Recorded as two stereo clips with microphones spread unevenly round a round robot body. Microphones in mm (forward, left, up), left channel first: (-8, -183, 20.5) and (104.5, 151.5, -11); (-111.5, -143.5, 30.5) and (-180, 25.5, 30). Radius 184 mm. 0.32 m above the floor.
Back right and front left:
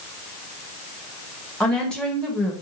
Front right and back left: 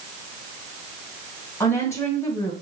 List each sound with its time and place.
1.6 s a woman speaking: 10° right, 1.0 m